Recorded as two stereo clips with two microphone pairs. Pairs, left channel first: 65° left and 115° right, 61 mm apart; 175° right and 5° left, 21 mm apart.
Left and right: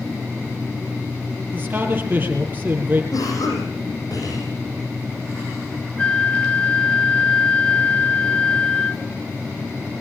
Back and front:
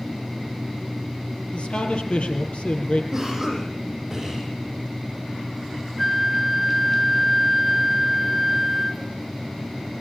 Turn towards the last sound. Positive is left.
turn(degrees=90)